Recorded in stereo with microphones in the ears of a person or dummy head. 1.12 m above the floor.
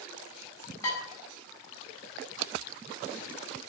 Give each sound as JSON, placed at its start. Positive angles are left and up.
{"t": 0.8, "sound": "dishes clattering", "side_deg": 20, "distance_m": 3.5}